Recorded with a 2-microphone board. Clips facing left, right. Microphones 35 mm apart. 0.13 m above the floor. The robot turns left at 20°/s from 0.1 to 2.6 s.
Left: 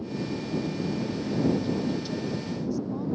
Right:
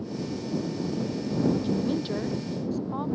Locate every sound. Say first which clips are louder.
1.6 s a woman speaking: right 1 dB; 25° right (ahead or behind); by 3.1 s 45° right (ahead or behind)